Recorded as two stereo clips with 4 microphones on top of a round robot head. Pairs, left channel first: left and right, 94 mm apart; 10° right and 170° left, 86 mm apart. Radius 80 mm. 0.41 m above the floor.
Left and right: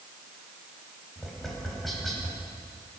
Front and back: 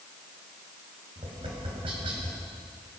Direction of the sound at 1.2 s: Straight behind.